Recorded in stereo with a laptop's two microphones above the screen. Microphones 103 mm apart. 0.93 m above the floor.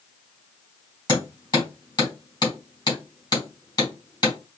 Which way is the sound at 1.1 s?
40° left (ahead or behind).